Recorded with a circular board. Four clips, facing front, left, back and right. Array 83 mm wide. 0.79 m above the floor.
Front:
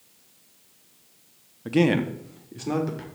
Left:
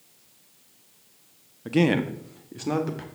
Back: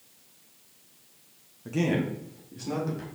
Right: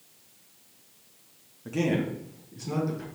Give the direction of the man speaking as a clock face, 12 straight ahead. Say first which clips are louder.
Left 5 dB, front 6 dB; 11 o'clock.